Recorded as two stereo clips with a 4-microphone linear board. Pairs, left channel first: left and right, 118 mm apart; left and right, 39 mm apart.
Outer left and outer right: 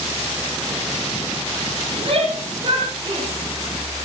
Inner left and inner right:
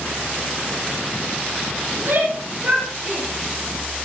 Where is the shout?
55° right (ahead or behind), 9 m; by 3.3 s 40° right (ahead or behind), 9 m.